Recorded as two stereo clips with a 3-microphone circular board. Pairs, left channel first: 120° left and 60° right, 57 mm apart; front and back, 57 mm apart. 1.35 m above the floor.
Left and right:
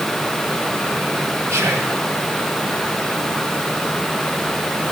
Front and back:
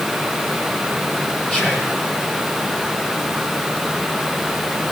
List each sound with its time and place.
1.5 s whispering: 70° right, 0.6 m